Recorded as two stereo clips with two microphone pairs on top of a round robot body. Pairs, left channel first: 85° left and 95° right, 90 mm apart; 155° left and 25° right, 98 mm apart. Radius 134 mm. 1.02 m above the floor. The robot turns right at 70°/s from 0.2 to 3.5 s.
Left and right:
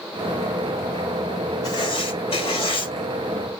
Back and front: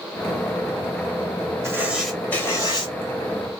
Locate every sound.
1.6 s writing: 30° left, 1.9 m; by 2.9 s 120° left, 1.9 m